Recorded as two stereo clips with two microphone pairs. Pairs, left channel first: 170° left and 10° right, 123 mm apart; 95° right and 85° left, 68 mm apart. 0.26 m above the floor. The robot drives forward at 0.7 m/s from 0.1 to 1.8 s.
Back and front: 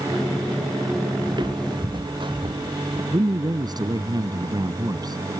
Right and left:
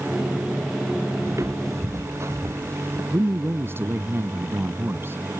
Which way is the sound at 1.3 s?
40° left.